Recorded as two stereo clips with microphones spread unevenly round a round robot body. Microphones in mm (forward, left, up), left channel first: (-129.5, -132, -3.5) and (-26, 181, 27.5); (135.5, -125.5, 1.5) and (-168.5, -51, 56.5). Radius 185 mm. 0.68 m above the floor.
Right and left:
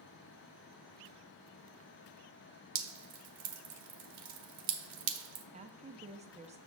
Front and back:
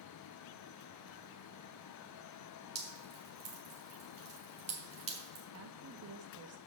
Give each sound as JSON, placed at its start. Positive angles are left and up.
{"t": 2.8, "sound": "dripping", "azimuth_deg": 90, "distance_m": 1.0}
{"t": 5.5, "sound": "a woman speaking", "azimuth_deg": 140, "distance_m": 0.8}